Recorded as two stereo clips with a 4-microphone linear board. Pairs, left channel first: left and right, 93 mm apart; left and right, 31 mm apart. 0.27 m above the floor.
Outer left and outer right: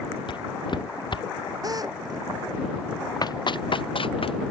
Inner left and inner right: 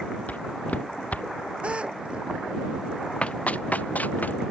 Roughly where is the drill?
Right.